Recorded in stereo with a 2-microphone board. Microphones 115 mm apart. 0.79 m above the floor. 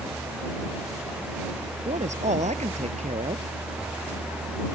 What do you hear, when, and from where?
1.9 s a man speaking: 90° right